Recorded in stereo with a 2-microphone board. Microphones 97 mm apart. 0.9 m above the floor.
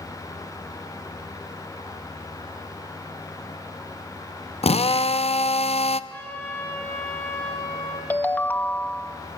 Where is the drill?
80° left, 0.6 m.